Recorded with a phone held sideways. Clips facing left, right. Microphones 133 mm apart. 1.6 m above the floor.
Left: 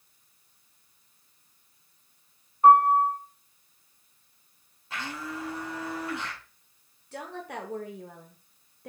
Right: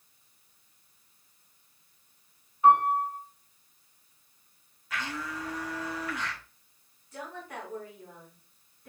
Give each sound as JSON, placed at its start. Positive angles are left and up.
{"t": 2.6, "sound": "a piano", "side_deg": 45, "distance_m": 3.5}
{"t": 4.9, "sound": "a blender", "side_deg": 25, "distance_m": 1.4}
{"t": 7.1, "sound": "a woman speaking", "side_deg": 65, "distance_m": 0.9}